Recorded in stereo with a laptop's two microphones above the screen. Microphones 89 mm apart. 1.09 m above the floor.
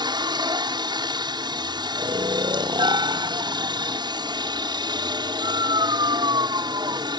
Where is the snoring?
60° right (ahead or behind).